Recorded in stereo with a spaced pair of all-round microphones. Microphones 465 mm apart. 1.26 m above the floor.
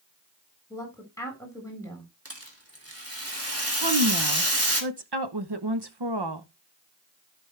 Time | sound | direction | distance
0.7 | a woman speaking | 5° left (ahead or behind) | 4.5 m
2.2 | a rattle | 30° right (ahead or behind) | 2.5 m
3.8 | a woman speaking | 55° right (ahead or behind) | 1.0 m